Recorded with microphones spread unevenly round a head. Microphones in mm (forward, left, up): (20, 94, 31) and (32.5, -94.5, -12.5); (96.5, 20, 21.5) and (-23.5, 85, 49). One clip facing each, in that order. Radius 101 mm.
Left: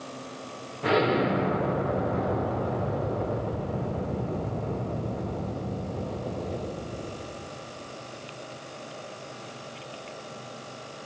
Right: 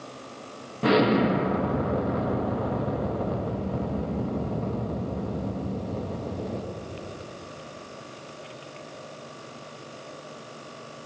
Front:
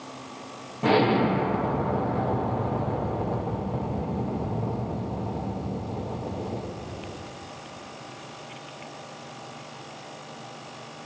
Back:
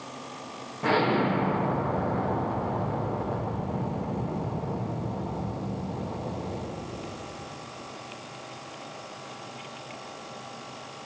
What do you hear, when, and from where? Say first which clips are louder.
0.8 s an explosion: right 3 dB, front 3 dB; 90° right, 1.6 m